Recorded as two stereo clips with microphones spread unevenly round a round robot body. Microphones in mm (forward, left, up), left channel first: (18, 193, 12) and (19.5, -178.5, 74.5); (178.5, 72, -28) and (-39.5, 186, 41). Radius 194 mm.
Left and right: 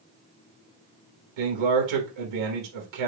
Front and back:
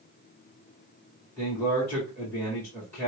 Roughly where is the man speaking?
Right.